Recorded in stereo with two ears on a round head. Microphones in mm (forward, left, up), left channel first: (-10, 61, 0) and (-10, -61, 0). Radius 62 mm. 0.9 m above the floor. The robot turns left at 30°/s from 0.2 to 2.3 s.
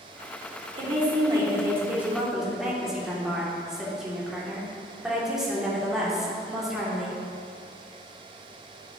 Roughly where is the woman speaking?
Behind right.